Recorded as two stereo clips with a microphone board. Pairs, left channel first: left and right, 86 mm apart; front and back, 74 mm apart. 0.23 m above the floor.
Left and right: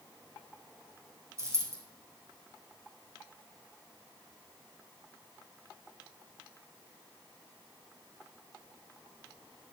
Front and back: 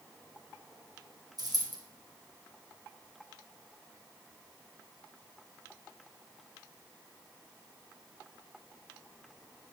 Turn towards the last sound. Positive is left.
turn(degrees=-150)